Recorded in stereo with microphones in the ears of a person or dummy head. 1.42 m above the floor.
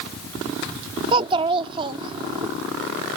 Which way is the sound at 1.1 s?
25° right (ahead or behind).